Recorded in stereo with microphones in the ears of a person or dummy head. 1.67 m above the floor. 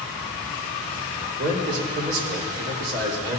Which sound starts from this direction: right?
A man speaking, at 1.4 s.